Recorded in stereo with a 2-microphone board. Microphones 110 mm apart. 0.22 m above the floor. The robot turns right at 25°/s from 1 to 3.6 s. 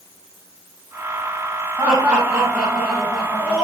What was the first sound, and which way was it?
Laughter, 35° right.